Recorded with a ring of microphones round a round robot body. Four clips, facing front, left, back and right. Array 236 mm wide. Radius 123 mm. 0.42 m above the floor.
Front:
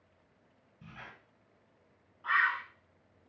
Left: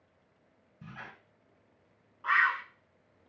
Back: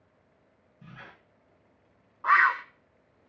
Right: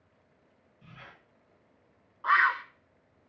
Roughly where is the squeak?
Left.